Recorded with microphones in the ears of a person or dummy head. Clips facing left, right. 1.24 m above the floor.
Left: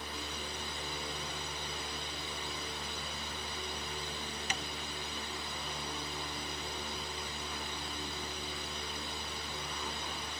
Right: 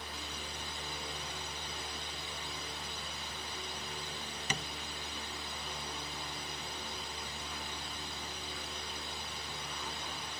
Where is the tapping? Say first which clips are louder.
Right 3 dB; 70° right (ahead or behind).